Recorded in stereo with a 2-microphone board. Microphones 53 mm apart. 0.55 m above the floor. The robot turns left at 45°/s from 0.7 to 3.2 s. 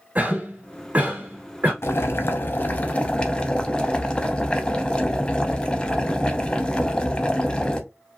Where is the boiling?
85° left, 0.5 m; by 7.8 s 25° left, 0.5 m.